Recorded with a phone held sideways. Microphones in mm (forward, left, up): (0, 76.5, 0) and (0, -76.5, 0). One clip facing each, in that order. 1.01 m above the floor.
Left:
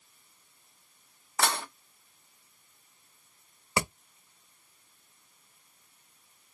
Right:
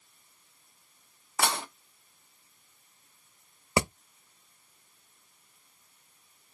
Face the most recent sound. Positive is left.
turn(degrees=-25)  # may be behind; listen again after turning